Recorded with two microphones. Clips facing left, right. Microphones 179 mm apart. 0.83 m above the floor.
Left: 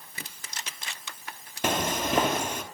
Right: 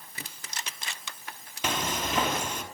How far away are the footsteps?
About 1.2 m.